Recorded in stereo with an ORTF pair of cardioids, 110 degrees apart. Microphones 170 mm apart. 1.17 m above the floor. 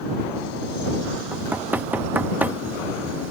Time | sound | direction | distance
1.3 | knocking | 10° right | ?